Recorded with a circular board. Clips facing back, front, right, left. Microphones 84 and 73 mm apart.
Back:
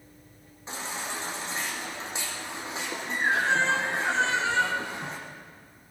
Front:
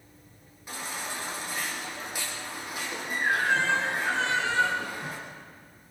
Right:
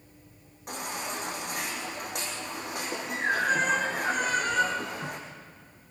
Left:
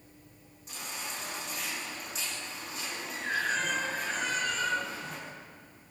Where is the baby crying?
115° right, 5.5 m.